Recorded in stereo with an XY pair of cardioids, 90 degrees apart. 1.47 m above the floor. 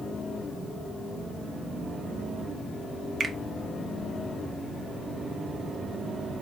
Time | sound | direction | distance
3.2 | a finger snap | 50° right | 0.8 m